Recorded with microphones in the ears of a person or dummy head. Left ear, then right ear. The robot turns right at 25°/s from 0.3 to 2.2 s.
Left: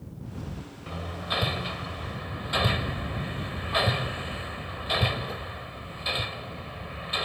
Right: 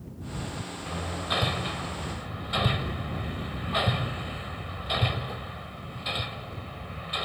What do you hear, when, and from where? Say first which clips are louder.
0.9 s hammering: right 1 dB; centre (ahead or behind); by 7.3 s 20° left (ahead or behind)